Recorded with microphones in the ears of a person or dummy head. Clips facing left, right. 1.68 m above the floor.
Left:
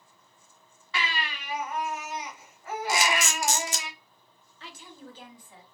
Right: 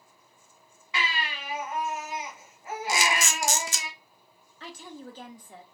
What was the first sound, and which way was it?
A baby crying, 15° right (ahead or behind).